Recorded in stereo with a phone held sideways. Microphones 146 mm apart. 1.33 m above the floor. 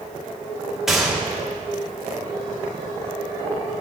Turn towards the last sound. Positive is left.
turn(degrees=0)  # may be behind; listen again after turning